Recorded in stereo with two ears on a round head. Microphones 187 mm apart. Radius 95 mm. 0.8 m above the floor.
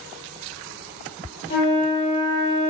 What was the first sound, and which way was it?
A flute, 55° left (ahead or behind).